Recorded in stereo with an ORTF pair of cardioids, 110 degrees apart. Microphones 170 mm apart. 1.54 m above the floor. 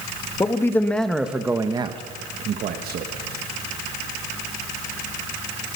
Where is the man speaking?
20° left, 2 m; by 3.1 s 65° right, 1.9 m.